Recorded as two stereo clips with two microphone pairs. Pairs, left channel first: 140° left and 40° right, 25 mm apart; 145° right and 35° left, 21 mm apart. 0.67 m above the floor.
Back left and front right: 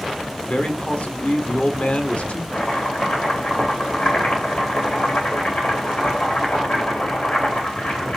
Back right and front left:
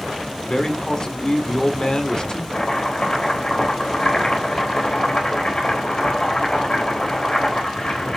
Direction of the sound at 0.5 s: 165° left.